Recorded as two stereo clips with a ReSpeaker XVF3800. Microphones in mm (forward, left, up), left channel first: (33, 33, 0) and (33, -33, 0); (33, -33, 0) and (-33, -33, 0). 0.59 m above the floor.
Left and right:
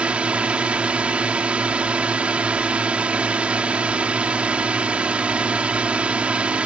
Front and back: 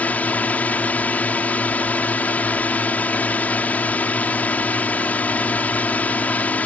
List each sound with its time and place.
0.0 s a drone: 35° right